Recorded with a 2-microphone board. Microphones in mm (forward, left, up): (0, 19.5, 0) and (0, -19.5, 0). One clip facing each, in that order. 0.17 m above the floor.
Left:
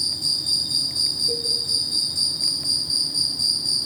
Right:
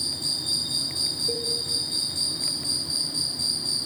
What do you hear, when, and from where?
0.0 s an insect: 40° right (ahead or behind), 1.0 m
1.3 s a cowbell: 25° right (ahead or behind), 5.5 m